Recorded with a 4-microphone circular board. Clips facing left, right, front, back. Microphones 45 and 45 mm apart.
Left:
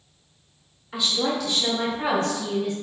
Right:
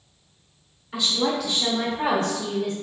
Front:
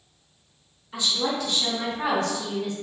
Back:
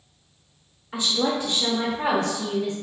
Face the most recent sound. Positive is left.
turn(degrees=-105)